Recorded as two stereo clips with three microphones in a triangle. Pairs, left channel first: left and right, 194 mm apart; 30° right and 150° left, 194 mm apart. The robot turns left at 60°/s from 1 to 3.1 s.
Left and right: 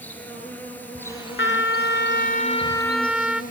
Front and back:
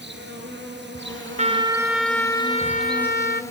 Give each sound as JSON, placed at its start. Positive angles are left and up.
{"t": 0.0, "sound": "an insect", "azimuth_deg": 170, "distance_m": 4.0}
{"t": 1.4, "sound": "a trumpet", "azimuth_deg": 100, "distance_m": 0.9}